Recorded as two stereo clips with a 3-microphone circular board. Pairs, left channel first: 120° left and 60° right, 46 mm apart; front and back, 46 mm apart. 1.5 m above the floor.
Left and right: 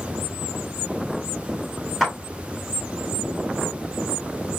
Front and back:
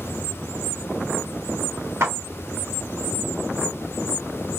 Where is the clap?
150° right, 3.5 m.